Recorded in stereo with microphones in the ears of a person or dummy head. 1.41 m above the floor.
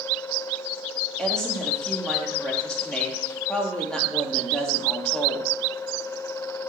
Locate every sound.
1.2 s a woman speaking: 5° left (ahead or behind), 3.5 m